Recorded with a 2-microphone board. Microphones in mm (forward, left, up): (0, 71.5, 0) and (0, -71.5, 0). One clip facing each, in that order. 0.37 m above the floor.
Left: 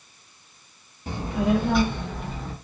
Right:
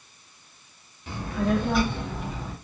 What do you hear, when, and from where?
1.1 s a child speaking: 35° left (ahead or behind), 0.6 m; by 2.5 s 15° right (ahead or behind), 1.6 m